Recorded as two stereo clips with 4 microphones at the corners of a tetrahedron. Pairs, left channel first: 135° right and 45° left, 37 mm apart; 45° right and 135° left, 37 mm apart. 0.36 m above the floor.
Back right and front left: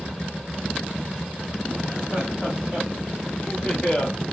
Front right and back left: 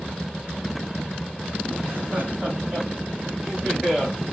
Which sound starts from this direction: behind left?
Laughter, at 1.8 s.